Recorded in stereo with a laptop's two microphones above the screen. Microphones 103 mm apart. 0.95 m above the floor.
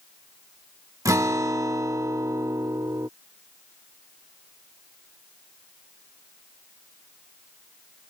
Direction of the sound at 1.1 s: 30° right (ahead or behind).